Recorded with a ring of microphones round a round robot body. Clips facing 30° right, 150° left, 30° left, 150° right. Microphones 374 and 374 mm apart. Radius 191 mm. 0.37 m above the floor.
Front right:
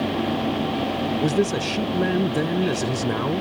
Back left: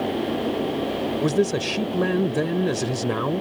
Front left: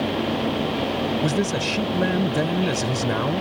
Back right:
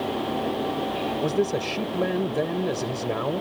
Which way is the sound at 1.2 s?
55° left.